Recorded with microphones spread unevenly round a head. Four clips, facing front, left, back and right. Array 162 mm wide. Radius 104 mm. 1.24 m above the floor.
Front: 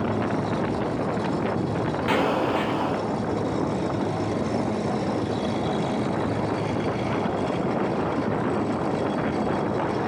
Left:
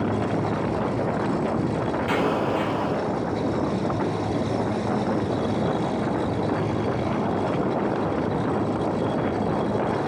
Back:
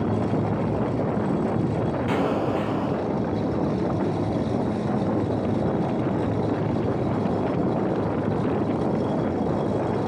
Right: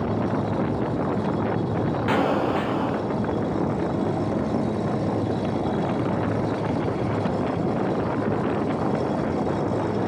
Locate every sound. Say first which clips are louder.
2.1 s an explosion: right 2 dB, front 3 dB; 40° right, 2.0 m